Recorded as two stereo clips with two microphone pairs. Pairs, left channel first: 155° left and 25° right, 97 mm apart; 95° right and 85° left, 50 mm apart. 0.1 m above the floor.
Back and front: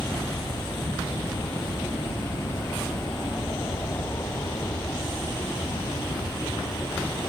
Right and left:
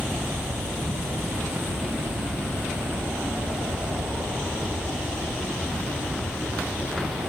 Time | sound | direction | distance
0.0 | an aircraft | 95° left | ?